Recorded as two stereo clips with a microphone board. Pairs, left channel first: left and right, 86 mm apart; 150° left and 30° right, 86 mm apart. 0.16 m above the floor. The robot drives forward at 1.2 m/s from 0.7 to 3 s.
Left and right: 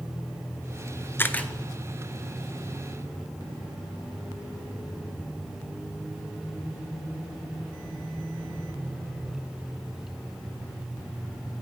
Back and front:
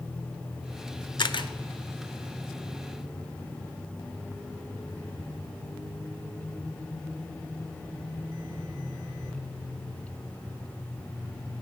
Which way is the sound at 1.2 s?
150° left.